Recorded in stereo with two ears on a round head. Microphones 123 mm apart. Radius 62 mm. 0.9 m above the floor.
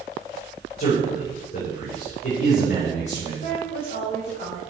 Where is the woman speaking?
50° left (ahead or behind), 3.5 m.